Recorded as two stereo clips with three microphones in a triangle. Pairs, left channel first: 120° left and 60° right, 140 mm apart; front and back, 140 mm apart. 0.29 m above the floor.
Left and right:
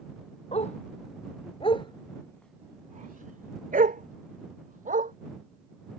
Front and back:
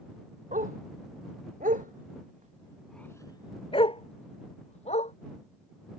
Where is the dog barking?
160° left; by 5.1 s 40° right.